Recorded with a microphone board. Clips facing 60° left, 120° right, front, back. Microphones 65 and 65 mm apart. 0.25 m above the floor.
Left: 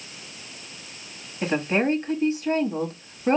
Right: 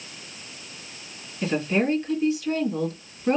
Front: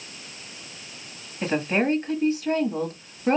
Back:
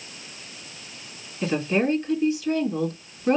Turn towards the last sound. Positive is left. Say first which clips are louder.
# left 1 dB, even
turn(degrees=40)